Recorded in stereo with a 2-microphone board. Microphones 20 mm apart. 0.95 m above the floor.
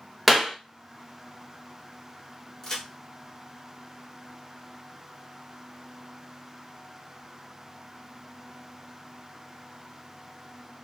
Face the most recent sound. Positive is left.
turn(degrees=20)  # may be behind; listen again after turning